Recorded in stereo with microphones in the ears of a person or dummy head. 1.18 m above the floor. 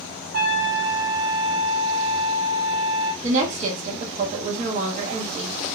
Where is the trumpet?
55° right (ahead or behind), 1.3 m.